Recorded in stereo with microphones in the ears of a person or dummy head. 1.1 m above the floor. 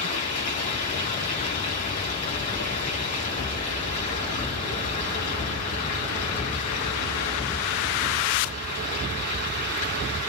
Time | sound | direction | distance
0.0 | running water | 35° left (ahead or behind) | 5.5 m